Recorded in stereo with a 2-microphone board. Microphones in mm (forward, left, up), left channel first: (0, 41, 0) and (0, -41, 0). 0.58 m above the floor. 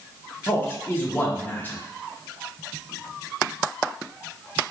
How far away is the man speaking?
About 0.8 m.